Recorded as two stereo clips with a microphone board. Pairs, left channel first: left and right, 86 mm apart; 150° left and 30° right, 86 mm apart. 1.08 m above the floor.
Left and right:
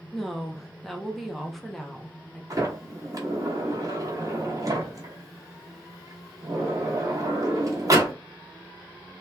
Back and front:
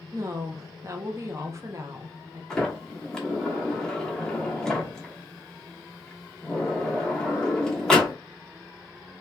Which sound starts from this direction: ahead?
A woman speaking, at 0.1 s.